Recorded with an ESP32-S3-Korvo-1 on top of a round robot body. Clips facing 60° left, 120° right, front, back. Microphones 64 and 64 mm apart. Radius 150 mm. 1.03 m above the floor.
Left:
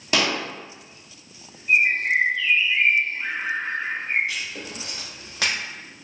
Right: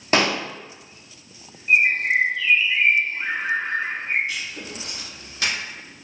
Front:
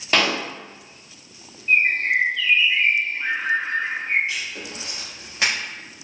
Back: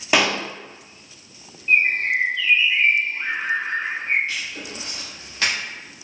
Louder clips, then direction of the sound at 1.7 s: Right 1 dB, even; 120° right.